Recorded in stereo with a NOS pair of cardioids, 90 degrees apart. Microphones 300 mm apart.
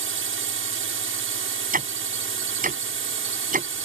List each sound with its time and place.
0.0 s a drone: 45° right
1.7 s ticking: 30° right